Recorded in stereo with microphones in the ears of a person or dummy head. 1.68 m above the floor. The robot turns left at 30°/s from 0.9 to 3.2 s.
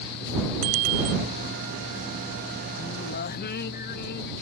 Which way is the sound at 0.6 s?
80° right.